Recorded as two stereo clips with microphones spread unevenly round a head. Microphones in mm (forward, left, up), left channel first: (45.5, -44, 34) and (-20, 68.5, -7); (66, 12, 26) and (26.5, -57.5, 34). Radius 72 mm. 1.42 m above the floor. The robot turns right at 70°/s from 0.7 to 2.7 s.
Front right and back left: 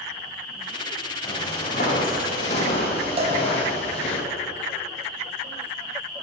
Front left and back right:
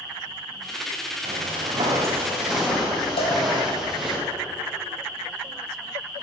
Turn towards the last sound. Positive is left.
turn(degrees=70)